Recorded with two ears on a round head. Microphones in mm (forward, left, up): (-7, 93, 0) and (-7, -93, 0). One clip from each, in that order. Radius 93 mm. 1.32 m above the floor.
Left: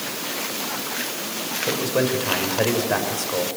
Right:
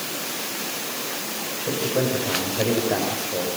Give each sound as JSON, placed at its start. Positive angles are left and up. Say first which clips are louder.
{"t": 1.7, "sound": "a man speaking", "louder": "left 1 dB", "side_deg": 40, "distance_m": 6.0}